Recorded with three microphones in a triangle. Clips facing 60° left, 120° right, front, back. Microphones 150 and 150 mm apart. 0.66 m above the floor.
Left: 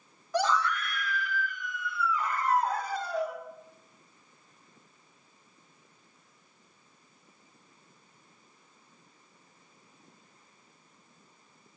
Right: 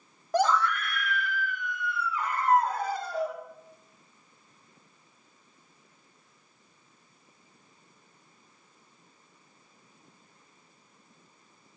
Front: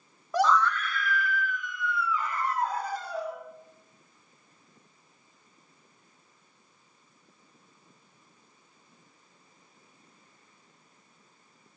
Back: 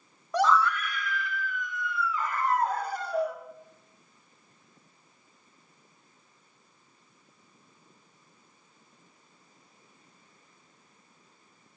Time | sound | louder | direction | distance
0.3 | a scream | right 3 dB, even | 85° right | 1.5 m